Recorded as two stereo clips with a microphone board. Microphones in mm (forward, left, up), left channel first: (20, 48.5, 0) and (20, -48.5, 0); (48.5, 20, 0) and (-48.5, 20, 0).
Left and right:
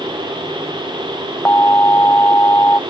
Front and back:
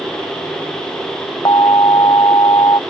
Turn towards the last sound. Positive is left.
turn(degrees=30)